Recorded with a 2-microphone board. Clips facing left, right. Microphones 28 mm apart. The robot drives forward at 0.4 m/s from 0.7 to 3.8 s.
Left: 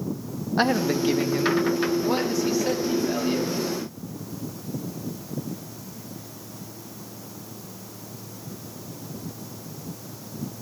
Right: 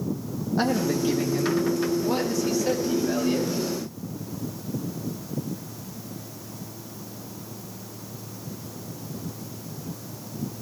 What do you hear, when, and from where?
0.6 s a man speaking: 35° left (ahead or behind), 0.8 m; by 3.5 s 15° left (ahead or behind), 1.8 m